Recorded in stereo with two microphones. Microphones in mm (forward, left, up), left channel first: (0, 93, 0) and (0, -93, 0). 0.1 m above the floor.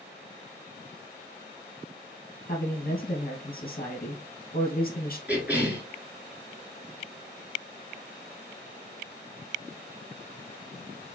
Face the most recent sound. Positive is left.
turn(degrees=-10)  # may be behind; listen again after turning